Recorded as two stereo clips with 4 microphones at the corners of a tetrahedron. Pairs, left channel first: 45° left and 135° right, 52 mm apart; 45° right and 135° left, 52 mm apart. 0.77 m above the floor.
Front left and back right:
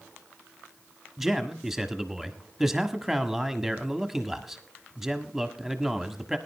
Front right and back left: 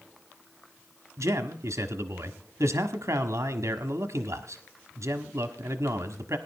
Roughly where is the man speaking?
Behind left.